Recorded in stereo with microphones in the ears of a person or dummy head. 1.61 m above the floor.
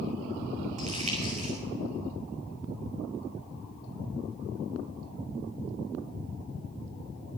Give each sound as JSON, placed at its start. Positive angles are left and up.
{"t": 0.8, "sound": "crumpling", "side_deg": -40, "distance_m": 4.5}